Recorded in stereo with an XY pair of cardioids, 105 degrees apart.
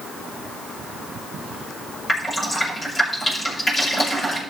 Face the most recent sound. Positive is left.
turn(degrees=25)